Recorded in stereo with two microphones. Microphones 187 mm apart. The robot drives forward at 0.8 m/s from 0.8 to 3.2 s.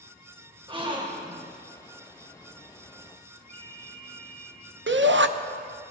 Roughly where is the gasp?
Right.